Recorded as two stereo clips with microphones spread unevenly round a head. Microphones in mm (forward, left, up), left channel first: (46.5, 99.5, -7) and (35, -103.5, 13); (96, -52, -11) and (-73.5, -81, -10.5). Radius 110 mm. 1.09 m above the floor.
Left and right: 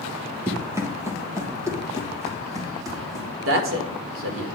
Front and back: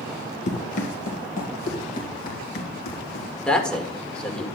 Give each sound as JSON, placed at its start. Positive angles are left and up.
{"t": 0.5, "sound": "running footsteps", "azimuth_deg": -25, "distance_m": 1.6}
{"t": 3.5, "sound": "a man speaking", "azimuth_deg": -75, "distance_m": 1.7}